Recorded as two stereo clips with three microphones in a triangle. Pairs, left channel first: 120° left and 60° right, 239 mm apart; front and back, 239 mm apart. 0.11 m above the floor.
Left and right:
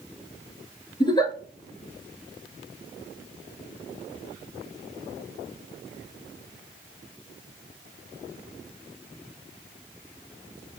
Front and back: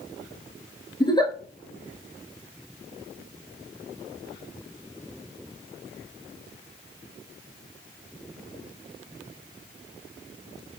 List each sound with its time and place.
1.0 s a giggle: 60° left, 0.9 m